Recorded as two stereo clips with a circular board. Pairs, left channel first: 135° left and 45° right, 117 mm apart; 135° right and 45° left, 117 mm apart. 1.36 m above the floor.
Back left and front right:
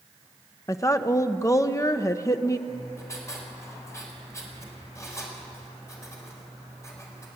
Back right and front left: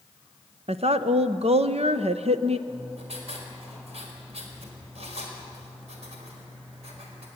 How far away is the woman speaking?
About 0.9 m.